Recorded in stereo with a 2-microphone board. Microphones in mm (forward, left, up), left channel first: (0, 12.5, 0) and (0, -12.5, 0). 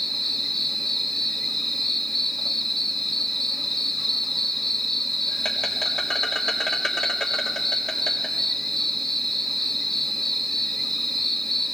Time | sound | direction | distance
0.0 | an insect | 20° left (ahead or behind) | 1.5 m